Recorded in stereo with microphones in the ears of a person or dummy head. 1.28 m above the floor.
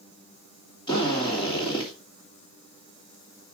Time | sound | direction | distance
0.9 | a drill | 25° left (ahead or behind) | 3 m